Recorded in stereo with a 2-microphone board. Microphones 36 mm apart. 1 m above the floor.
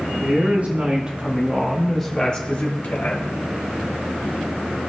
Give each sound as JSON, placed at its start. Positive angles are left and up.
{"t": 0.2, "sound": "a woman speaking", "side_deg": -50, "distance_m": 3.0}